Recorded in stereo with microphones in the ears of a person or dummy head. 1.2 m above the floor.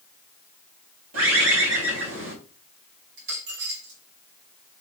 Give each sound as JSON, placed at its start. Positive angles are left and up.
{"t": 1.1, "sound": "a bird", "side_deg": -85, "distance_m": 3.0}
{"t": 3.2, "sound": "a dropped coin", "side_deg": -75, "distance_m": 2.5}